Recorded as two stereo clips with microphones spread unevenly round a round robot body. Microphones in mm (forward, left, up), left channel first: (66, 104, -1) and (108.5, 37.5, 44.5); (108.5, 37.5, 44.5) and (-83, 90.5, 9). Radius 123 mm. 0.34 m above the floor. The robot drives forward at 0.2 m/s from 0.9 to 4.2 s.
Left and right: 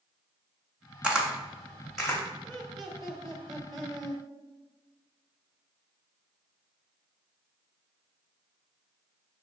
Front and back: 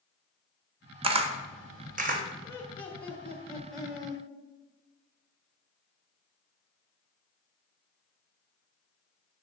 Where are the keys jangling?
I don't hear keys jangling.